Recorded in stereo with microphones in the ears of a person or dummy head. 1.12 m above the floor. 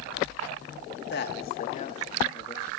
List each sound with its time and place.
1.1 s a man speaking: 55° left (ahead or behind), 1.2 m; by 2.7 s 20° left (ahead or behind), 1.6 m